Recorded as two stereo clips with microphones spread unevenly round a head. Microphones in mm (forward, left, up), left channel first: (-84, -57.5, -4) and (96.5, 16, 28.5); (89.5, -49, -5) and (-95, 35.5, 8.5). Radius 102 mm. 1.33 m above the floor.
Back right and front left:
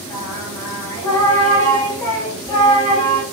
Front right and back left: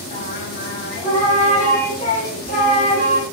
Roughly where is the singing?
Right.